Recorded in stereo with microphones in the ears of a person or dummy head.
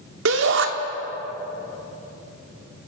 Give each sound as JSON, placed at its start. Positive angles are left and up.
{"t": 0.2, "sound": "a shout", "side_deg": -80, "distance_m": 2.5}